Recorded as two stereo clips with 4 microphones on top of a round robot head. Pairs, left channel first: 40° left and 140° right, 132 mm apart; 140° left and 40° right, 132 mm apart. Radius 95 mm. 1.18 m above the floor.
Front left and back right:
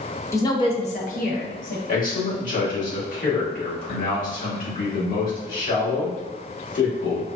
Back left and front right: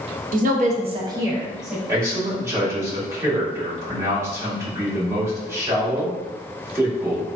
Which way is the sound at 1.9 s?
30° left.